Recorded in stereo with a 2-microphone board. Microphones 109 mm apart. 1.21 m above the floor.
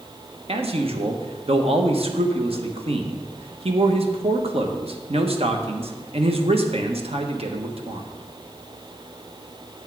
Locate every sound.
0.5 s a man speaking: 65° right (ahead or behind), 1.1 m